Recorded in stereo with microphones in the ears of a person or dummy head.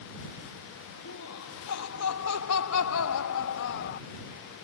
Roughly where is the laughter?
Left.